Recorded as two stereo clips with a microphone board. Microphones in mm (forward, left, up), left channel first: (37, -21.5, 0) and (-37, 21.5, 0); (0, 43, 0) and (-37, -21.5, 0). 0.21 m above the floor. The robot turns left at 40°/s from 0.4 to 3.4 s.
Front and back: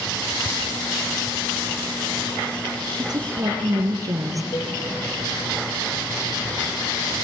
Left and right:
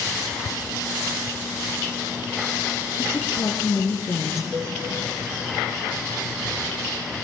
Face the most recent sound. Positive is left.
turn(degrees=-60)